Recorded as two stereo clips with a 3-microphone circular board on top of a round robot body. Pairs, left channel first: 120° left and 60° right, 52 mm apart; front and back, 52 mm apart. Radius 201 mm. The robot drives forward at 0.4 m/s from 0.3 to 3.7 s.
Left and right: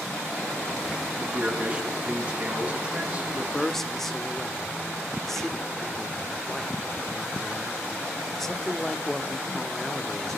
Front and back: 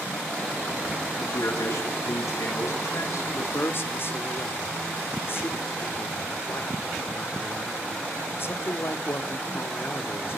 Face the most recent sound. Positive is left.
turn(degrees=35)